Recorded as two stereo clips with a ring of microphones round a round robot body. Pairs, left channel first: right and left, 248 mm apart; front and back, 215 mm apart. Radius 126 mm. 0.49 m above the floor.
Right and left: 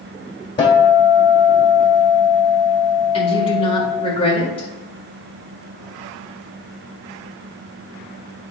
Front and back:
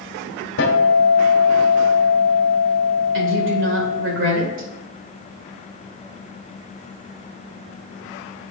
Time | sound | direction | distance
0.6 | a guitar | 20° right | 1.5 m
3.1 | a woman speaking | 155° right | 1.8 m